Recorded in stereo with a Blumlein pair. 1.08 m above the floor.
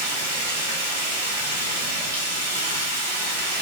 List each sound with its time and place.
0.0 s running water: 55° right, 1.5 m